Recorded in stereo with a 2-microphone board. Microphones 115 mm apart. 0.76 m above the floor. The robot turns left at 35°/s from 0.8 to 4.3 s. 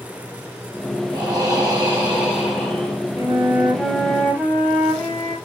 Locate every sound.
1.1 s breathing: 130° right, 1.8 m; by 3.0 s 160° left, 1.8 m
3.2 s a flute: 155° right, 1.5 m; by 5.4 s 165° left, 1.5 m